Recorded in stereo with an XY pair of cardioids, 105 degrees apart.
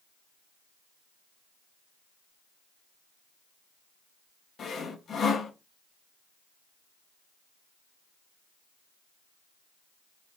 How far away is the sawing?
About 0.9 m.